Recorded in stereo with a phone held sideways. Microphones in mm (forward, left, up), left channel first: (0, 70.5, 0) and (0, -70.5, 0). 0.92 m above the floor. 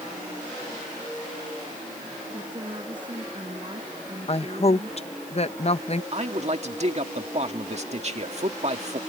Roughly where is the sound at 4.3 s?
Left.